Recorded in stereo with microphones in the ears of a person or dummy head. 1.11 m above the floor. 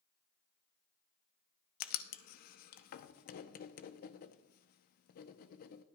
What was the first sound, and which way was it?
Writing, 50° left (ahead or behind).